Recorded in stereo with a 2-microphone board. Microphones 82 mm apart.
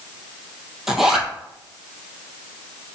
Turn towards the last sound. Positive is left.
turn(degrees=-5)  # may be behind; listen again after turning